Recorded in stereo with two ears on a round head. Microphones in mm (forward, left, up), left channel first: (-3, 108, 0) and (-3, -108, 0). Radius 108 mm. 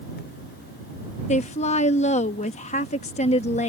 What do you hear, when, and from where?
1.3 s a woman speaking: 30° left (ahead or behind)